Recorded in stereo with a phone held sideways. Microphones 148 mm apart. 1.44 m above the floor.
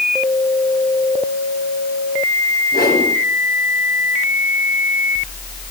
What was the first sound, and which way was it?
A whoosh, 90° left.